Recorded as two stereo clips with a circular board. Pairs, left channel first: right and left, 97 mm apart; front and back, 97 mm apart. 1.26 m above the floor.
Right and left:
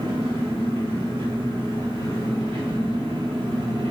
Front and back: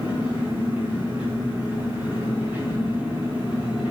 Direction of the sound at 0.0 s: 105° left.